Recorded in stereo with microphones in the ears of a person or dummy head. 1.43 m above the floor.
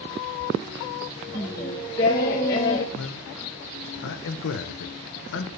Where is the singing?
20° left (ahead or behind), 0.6 m.